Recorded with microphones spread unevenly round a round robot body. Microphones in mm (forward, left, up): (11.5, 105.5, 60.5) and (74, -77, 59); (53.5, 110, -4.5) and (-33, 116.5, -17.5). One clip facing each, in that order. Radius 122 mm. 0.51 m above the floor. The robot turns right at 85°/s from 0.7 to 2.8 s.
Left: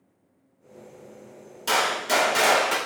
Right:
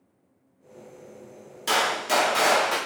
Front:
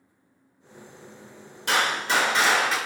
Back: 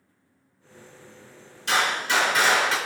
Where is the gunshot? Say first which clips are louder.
Even, even; straight ahead, 1.5 m; by 2.8 s 95° left, 1.5 m.